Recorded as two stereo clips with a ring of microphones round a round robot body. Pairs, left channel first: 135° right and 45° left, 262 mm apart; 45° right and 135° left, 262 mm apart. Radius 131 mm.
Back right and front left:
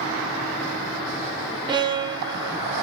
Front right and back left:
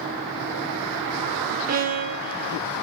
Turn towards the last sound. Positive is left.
turn(degrees=105)